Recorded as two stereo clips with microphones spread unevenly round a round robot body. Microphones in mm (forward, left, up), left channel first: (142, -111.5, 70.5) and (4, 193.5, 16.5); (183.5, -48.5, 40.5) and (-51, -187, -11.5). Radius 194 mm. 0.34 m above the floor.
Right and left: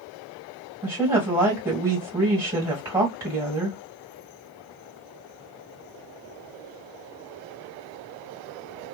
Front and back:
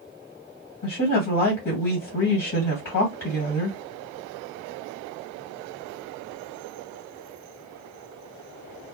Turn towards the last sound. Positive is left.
turn(degrees=45)